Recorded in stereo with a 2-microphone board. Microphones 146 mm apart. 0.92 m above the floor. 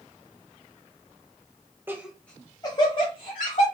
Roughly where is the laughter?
Centre.